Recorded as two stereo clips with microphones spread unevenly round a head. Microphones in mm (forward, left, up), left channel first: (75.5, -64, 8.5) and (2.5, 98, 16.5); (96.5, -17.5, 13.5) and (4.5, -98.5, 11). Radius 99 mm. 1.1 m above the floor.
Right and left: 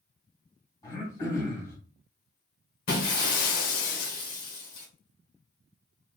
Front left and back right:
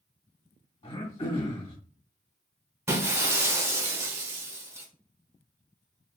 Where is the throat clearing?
5° left, 1.3 m.